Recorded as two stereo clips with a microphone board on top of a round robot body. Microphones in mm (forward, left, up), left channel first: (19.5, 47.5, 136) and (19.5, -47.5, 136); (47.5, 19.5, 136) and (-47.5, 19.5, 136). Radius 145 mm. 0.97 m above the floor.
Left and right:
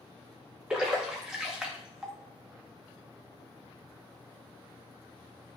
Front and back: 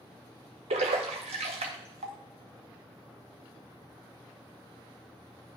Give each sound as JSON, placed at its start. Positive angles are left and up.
{"t": 0.7, "sound": "a splash", "azimuth_deg": -175, "distance_m": 0.5}